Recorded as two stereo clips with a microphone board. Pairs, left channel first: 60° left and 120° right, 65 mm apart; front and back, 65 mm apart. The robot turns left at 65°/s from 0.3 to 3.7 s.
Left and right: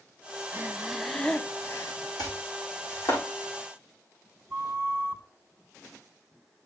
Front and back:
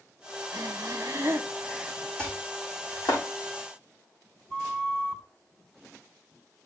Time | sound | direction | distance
0.5 | breathing | 175° right | 0.8 m
2.2 | chopping | 75° left | 6.5 m
4.5 | a flute | 70° right | 2.5 m